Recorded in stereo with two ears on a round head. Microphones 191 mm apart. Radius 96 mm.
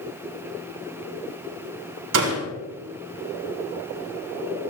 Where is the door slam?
85° right, 7 m.